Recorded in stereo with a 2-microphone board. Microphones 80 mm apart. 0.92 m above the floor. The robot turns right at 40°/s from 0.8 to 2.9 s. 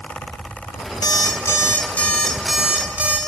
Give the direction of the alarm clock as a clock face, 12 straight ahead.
8 o'clock.